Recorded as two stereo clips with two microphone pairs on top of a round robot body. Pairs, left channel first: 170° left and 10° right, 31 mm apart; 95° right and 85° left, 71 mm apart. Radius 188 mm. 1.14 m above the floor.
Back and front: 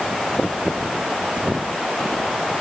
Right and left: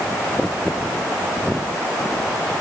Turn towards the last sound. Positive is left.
No sound to turn to.